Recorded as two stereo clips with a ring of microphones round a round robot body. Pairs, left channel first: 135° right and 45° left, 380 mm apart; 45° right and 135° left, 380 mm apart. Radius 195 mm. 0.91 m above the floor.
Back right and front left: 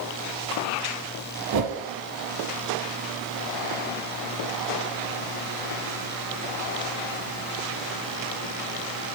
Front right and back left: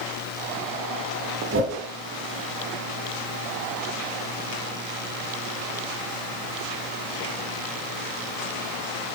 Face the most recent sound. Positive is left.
turn(degrees=80)